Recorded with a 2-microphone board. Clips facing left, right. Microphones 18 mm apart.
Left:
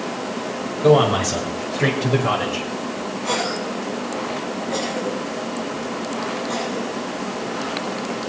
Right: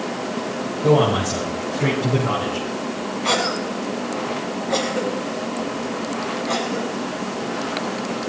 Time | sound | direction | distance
0.8 | a man speaking | 55° left (ahead or behind) | 6.5 m
3.2 | a cough | 25° right (ahead or behind) | 6 m